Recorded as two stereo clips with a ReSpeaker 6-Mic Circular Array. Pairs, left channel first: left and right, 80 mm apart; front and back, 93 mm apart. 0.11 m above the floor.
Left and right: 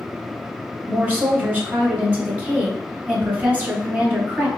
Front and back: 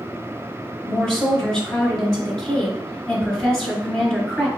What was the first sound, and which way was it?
A woman speaking, 70° right.